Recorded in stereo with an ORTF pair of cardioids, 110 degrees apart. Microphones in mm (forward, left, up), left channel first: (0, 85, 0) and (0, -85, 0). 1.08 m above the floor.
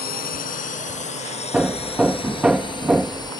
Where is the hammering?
5° right.